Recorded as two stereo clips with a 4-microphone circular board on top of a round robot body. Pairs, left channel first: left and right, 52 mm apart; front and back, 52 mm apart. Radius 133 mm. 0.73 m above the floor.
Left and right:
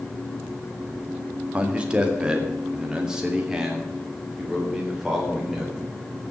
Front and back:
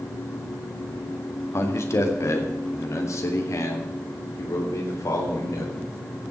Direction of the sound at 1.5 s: 25° right.